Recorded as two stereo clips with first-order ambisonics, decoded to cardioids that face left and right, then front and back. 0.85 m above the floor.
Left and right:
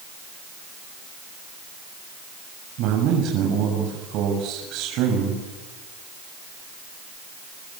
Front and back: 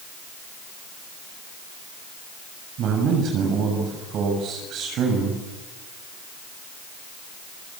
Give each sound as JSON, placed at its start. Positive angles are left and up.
{"t": 2.8, "sound": "a man speaking", "azimuth_deg": -130, "distance_m": 6.5}